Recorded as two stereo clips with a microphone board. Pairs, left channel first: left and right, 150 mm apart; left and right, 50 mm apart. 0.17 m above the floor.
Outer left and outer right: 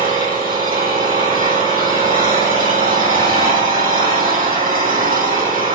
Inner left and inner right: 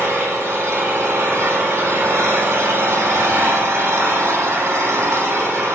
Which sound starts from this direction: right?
An engine running, at 0.0 s.